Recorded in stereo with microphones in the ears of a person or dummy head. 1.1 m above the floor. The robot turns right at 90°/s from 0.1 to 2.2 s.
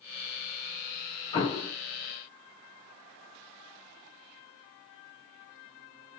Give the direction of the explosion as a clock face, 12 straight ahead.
11 o'clock.